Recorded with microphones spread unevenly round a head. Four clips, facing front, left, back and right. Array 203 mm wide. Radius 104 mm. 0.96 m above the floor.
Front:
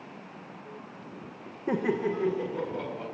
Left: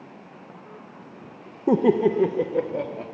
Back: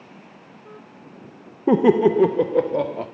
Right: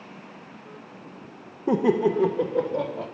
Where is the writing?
I don't hear writing.